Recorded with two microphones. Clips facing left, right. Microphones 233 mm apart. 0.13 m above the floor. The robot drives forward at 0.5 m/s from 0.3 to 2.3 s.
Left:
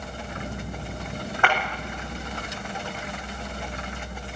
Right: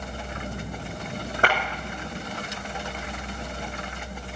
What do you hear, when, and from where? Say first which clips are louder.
1.4 s a clap: even; 45° right (ahead or behind), 7 m; by 1.6 s 40° right (ahead or behind), 7 m